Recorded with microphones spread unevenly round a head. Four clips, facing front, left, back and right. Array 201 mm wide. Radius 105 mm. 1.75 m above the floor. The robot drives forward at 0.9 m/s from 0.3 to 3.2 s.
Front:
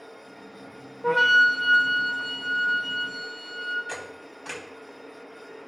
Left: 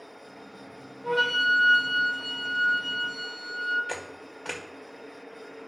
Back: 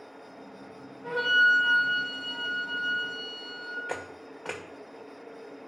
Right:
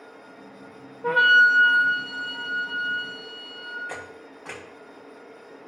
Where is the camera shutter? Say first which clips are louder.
Left 1 dB, back 1 dB; 170° left, 1.6 m.